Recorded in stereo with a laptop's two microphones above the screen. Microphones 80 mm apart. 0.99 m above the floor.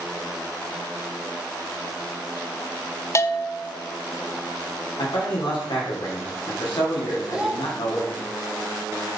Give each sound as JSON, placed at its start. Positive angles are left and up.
{"t": 3.1, "sound": "a bell", "side_deg": 35, "distance_m": 0.6}
{"t": 5.0, "sound": "a man speaking", "side_deg": 80, "distance_m": 2.5}
{"t": 7.3, "sound": "a child speaking", "side_deg": -10, "distance_m": 1.1}